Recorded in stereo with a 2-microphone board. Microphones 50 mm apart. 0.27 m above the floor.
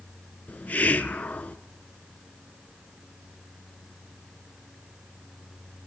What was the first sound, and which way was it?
A hiss, 35° left (ahead or behind).